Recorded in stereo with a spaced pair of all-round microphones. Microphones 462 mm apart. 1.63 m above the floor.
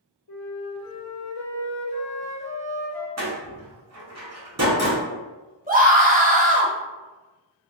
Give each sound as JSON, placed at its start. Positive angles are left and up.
{"t": 0.3, "sound": "a flute", "side_deg": 55, "distance_m": 0.7}
{"t": 3.2, "sound": "a door slam", "side_deg": -35, "distance_m": 0.8}
{"t": 5.7, "sound": "a scream", "side_deg": -20, "distance_m": 0.7}